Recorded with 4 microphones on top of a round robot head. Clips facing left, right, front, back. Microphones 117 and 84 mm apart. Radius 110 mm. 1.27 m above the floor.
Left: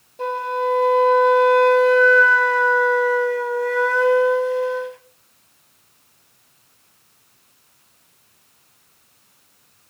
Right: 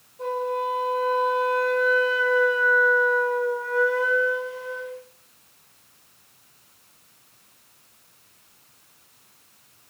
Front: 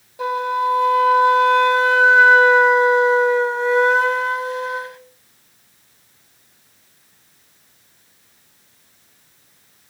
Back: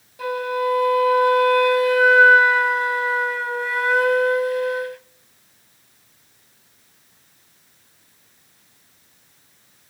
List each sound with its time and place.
0.2 s a flute: 65° left, 1.1 m